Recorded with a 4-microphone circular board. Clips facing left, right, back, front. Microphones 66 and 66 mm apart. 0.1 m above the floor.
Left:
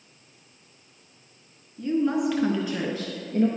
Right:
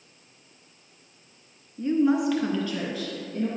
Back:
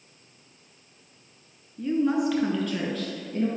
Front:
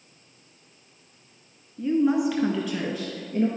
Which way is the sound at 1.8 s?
85° right.